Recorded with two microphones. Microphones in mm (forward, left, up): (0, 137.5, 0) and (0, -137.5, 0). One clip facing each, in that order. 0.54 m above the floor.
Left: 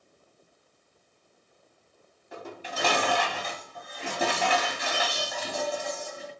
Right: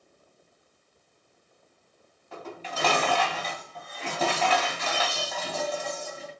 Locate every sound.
2.3 s dishes clattering: 15° left (ahead or behind), 2.5 m